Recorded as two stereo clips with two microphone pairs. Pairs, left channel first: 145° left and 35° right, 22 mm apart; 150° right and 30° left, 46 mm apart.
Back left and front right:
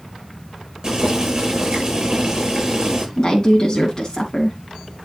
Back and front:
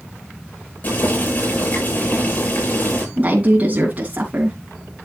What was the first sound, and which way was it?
Boiling, 95° right.